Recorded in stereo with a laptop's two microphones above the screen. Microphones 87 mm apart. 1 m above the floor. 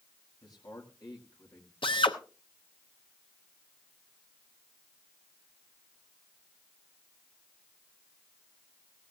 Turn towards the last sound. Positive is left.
turn(degrees=90)